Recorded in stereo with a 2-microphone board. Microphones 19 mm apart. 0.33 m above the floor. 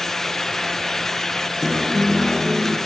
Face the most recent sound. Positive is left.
turn(degrees=-5)  # may be behind; listen again after turning